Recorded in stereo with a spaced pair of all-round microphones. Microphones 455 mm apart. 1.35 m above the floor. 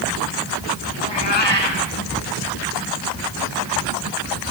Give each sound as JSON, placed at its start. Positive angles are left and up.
{"t": 1.0, "sound": "a cat meowing", "side_deg": 65, "distance_m": 2.5}